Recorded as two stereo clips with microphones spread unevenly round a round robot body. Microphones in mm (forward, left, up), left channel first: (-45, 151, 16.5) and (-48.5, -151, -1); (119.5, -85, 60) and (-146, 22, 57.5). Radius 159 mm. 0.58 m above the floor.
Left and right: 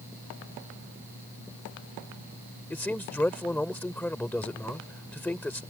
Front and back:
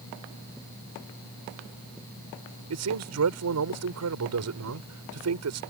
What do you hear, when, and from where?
2.7 s a man speaking: 175° left